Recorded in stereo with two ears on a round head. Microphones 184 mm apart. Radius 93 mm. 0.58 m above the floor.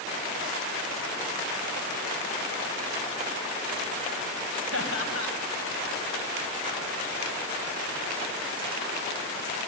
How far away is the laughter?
About 4 m.